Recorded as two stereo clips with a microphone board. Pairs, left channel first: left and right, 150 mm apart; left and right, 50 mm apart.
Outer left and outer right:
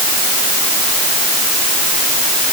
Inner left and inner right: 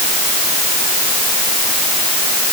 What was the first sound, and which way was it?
Only background noise.